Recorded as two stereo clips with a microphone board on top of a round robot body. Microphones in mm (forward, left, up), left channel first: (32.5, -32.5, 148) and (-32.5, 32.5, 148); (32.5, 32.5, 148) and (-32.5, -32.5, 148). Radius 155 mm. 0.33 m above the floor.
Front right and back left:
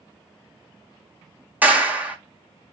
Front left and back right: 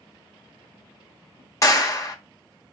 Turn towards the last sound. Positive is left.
turn(degrees=70)